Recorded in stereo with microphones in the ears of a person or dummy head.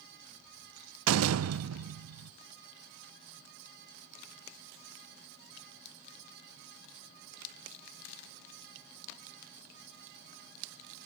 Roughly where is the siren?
No siren in this recording.